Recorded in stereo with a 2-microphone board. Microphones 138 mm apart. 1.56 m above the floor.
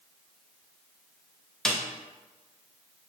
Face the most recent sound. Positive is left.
turn(degrees=5)  # may be behind; listen again after turning